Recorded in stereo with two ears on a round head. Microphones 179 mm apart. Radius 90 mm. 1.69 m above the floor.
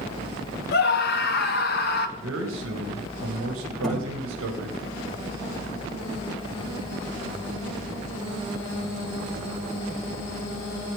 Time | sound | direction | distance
0.7 | a scream | 50° left (ahead or behind) | 1.3 m
2.2 | a man speaking | 75° right (ahead or behind) | 2.5 m
3.8 | a thud | centre (ahead or behind) | 8 m